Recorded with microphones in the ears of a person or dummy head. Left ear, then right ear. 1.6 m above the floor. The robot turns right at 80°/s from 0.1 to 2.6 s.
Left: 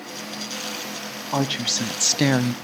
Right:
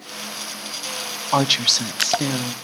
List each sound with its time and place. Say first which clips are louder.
1.3 s a woman speaking: right 6 dB; 55° right, 0.6 m; by 2.5 s 45° left, 0.6 m